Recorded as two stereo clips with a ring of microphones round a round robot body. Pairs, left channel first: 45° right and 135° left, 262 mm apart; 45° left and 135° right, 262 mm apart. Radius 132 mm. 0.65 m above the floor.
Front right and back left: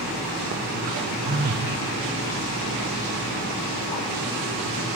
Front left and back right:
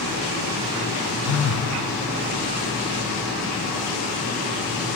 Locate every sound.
1.2 s a phone buzzing: 80° left, 0.8 m